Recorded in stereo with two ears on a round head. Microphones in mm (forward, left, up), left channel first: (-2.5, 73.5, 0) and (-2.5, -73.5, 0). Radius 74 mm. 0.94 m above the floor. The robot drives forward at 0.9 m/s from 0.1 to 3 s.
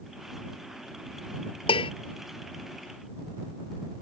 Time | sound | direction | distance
1.7 | dishes clattering | 35° left (ahead or behind) | ?